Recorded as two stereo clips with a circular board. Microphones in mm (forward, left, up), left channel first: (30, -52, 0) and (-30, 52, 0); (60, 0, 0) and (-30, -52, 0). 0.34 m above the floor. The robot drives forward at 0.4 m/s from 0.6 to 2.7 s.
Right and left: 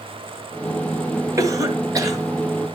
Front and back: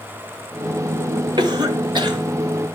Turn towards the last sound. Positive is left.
turn(degrees=180)